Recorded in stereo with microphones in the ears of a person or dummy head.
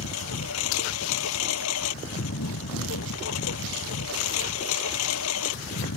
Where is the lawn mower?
75° left (ahead or behind).